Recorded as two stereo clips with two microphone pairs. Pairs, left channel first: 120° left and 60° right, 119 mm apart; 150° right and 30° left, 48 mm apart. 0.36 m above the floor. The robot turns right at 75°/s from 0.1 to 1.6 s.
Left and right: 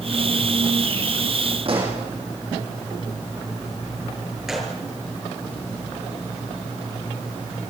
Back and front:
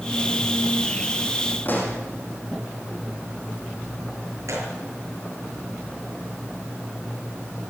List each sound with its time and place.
1.6 s a pop: 100° right, 7.5 m
4.5 s a gunshot: 30° left, 7.5 m